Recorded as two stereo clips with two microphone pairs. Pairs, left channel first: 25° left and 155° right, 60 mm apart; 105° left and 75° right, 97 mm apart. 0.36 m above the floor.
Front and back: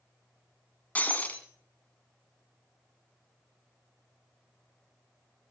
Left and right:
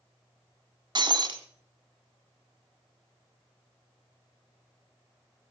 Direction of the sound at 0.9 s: 35° right.